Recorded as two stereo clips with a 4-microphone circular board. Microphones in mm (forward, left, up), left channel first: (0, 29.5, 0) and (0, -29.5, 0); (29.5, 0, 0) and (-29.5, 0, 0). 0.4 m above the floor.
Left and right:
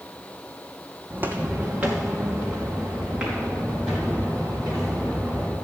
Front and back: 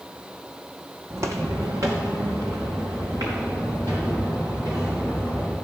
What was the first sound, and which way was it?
Footsteps, 145° right.